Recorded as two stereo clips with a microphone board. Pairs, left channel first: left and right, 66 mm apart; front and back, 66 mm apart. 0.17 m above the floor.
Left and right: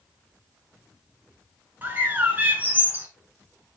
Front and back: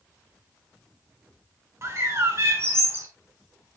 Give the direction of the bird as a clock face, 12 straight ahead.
5 o'clock.